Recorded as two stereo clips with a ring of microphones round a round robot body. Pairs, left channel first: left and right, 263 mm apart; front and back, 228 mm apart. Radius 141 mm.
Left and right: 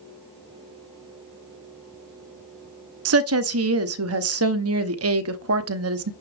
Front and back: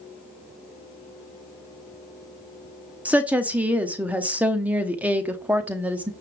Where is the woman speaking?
95° right, 0.8 m.